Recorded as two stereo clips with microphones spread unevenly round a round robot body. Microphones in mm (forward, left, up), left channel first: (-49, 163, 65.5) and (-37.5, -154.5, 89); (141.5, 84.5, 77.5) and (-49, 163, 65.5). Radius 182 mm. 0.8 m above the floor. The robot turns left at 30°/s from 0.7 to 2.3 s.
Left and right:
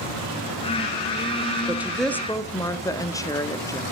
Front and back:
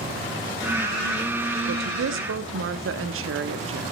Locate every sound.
1.7 s a woman speaking: 170° right, 1.5 m; by 3.8 s 170° left, 1.5 m